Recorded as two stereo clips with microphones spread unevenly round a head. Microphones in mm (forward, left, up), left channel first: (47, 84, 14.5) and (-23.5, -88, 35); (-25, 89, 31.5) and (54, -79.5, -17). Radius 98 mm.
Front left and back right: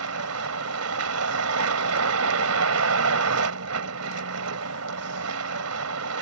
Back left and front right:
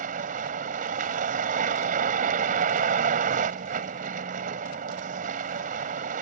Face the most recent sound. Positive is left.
turn(degrees=-120)